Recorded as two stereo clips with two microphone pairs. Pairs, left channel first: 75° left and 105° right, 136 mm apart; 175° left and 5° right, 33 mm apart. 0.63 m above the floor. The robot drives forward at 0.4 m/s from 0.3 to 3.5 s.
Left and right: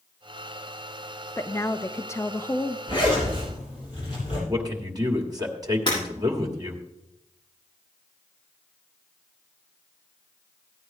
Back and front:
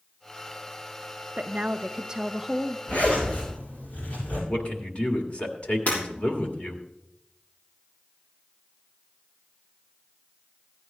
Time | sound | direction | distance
1.4 | a woman speaking | 15° left | 0.7 m
2.9 | a zipper | 130° left | 7.5 m
4.5 | a man speaking | 160° right | 1.8 m
5.9 | breaking glass | 130° left | 7 m